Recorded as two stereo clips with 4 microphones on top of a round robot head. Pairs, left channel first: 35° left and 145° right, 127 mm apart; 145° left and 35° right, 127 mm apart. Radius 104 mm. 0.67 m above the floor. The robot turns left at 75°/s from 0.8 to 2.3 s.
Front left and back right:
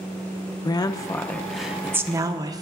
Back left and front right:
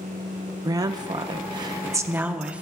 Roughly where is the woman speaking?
Ahead.